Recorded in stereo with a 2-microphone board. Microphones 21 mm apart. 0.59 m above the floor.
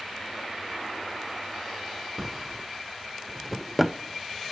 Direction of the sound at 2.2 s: Centre (ahead or behind).